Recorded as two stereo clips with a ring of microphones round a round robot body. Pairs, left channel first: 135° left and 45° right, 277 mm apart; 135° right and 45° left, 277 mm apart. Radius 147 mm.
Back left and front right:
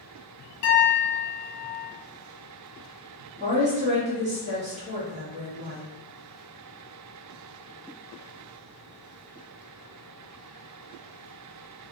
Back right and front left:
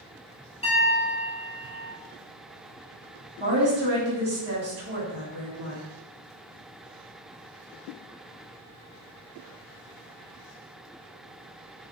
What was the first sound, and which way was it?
A piano, 155° left.